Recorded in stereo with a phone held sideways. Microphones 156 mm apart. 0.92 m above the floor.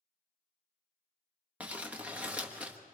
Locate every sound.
1.6 s crumpling: 10° right (ahead or behind), 1.4 m